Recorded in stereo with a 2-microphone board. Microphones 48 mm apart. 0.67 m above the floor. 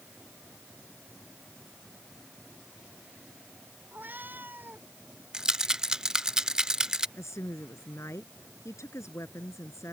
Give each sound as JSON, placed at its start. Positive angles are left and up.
{"t": 3.9, "sound": "a cat meowing", "side_deg": -40}
{"t": 5.3, "sound": "a rattle", "side_deg": -15}
{"t": 7.2, "sound": "a woman speaking", "side_deg": 75}